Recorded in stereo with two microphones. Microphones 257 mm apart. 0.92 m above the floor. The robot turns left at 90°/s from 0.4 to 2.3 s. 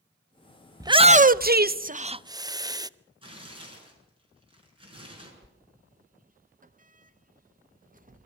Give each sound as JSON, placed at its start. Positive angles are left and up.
{"t": 0.8, "sound": "a shout", "side_deg": -10, "distance_m": 0.6}
{"t": 3.2, "sound": "tearing paper", "side_deg": -20, "distance_m": 6.5}
{"t": 5.4, "sound": "a sliding door", "side_deg": -30, "distance_m": 0.7}